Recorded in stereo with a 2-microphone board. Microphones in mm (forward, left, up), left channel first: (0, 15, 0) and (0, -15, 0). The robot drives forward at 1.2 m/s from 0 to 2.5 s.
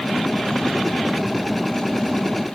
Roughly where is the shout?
No shout in this recording.